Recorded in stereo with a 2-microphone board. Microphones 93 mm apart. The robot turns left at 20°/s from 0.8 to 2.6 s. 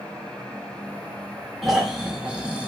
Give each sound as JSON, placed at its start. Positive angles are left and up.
{"t": 1.6, "sound": "snoring", "side_deg": 0, "distance_m": 0.9}